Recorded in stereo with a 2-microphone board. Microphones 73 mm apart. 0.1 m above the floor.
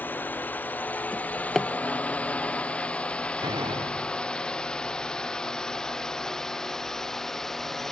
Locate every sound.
0.0 s a drone: 25° left (ahead or behind); by 7.9 s 5° left (ahead or behind)
1.1 s a drawer: 5° left (ahead or behind)
3.4 s a door slam: 80° right